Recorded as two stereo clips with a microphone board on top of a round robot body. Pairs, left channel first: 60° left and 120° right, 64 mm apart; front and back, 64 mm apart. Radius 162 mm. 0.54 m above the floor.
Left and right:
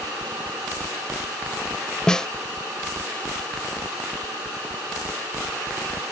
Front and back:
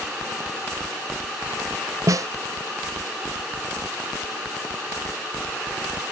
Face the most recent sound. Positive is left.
turn(degrees=140)